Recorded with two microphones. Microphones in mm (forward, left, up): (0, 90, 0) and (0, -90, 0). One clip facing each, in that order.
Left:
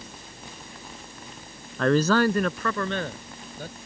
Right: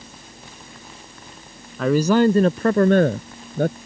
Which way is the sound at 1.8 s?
Centre (ahead or behind).